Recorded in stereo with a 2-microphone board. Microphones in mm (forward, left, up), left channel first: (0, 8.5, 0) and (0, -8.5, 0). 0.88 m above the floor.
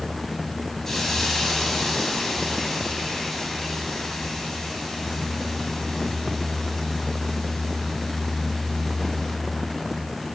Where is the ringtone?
No ringtone in this recording.